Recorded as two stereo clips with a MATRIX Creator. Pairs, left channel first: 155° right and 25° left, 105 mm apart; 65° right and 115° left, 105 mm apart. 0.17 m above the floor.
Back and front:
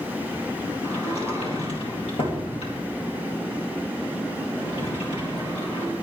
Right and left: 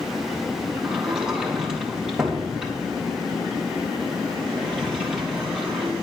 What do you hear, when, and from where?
0.8 s a sliding door: 165° right, 4 m